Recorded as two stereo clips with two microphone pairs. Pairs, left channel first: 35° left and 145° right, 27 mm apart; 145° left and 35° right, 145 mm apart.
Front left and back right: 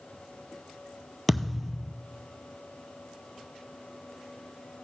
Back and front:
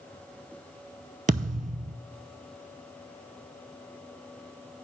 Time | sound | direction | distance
1.3 | a thud | 55° right | 0.7 m